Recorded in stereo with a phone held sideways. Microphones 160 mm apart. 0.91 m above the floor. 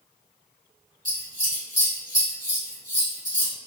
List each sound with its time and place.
1.1 s scissors: 25° left (ahead or behind), 1.8 m